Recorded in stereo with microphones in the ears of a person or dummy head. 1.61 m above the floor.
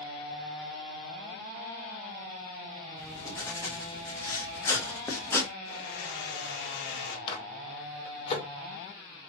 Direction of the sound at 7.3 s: 30° left (ahead or behind).